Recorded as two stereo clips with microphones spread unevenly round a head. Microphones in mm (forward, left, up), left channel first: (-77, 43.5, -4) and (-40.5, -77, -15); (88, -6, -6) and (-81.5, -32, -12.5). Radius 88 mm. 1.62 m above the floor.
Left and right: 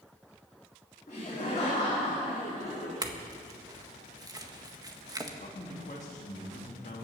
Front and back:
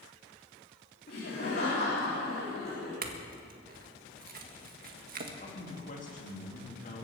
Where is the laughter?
50° left, 4 m.